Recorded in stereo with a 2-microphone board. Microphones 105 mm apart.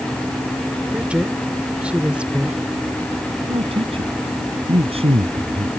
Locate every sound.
0.9 s a woman speaking: 10° right (ahead or behind)
3.5 s a man speaking: 65° right (ahead or behind)